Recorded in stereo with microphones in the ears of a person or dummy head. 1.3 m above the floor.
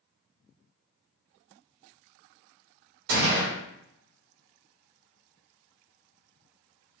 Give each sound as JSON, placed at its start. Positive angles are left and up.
{"t": 3.1, "sound": "a gunshot", "side_deg": -65, "distance_m": 1.8}